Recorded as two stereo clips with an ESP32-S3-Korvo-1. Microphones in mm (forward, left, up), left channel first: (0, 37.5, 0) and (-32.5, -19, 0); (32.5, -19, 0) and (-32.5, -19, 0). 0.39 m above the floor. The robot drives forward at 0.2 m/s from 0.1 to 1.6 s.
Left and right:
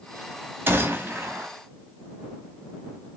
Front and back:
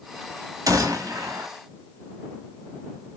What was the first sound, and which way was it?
A gunshot, 170° right.